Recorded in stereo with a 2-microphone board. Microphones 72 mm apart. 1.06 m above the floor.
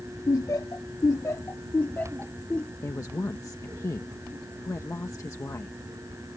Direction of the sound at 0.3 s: 50° left (ahead or behind).